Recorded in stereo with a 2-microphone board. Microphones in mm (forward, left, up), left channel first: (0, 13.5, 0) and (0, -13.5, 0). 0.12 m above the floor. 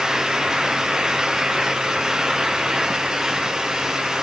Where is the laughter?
I don't hear laughter.